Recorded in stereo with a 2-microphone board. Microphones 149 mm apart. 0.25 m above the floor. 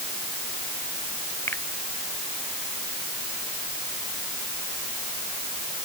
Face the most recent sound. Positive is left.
turn(degrees=15)  # may be behind; listen again after turning